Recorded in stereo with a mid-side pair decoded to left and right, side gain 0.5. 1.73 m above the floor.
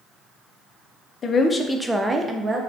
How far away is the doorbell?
No doorbell in this recording.